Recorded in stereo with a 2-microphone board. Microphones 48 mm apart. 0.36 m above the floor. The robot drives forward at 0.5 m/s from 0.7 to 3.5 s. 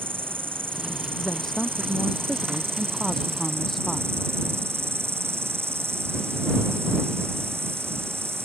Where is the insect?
45° right (ahead or behind); by 8.5 s 60° right (ahead or behind).